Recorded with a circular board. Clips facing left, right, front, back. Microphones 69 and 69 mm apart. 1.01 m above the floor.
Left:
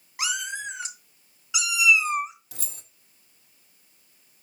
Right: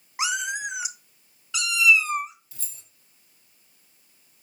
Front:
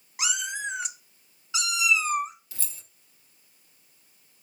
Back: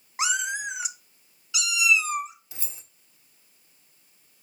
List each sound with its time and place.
0.2 s a cat meowing: 145° right, 0.8 m; by 2.3 s 25° left, 1.1 m
2.5 s keys jangling: 110° left, 0.8 m